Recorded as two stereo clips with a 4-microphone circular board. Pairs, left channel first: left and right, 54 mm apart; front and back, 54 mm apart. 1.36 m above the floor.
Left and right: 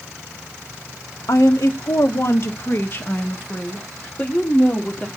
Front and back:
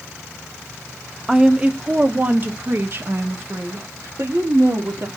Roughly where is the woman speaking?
Left.